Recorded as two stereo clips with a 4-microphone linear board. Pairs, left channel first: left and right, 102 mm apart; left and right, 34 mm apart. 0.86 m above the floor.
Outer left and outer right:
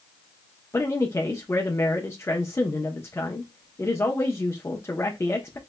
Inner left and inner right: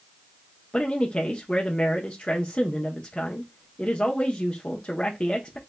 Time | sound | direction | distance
0.7 | a man speaking | 30° left (ahead or behind) | 0.6 m